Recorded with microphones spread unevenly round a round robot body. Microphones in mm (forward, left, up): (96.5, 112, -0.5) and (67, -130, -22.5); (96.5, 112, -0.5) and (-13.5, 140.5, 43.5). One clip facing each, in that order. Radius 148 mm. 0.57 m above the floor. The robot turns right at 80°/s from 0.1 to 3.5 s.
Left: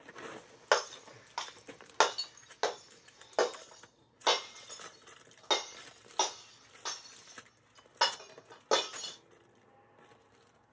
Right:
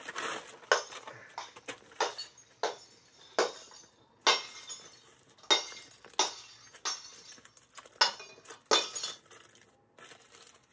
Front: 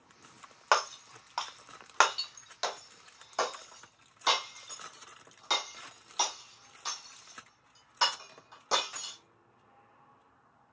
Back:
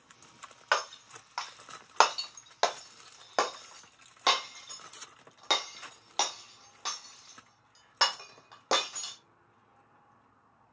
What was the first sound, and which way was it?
Breaking glass, 15° right.